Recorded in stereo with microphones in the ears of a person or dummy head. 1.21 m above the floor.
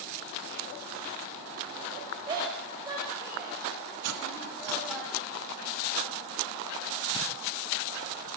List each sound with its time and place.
2.3 s a shout: 25° right (ahead or behind), 7.5 m; by 5.0 s 5° right (ahead or behind), 9 m
4.0 s cutlery clinking: 80° right, 1.4 m